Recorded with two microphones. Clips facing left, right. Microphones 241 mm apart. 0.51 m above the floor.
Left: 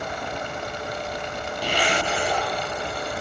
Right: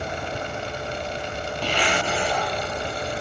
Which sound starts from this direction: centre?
A zipper, at 1.6 s.